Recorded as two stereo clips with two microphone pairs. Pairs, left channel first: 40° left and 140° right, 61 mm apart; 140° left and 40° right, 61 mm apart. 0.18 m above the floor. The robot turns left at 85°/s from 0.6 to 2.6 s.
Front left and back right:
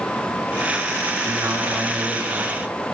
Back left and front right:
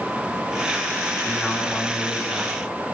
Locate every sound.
1.2 s a man speaking: 140° right, 2.5 m; by 2.7 s 105° left, 2.5 m